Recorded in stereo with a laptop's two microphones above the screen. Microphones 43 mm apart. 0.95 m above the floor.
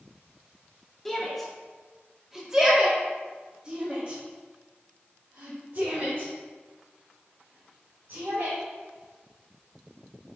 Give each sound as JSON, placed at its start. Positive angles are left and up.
{"t": 1.1, "sound": "a shout", "side_deg": 5, "distance_m": 2.5}